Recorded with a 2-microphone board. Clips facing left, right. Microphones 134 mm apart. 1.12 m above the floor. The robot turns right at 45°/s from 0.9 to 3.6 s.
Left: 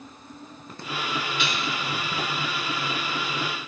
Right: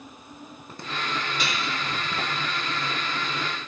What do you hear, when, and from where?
1.4 s dishes clattering: 40° right (ahead or behind), 1.8 m; by 1.7 s 50° right (ahead or behind), 1.8 m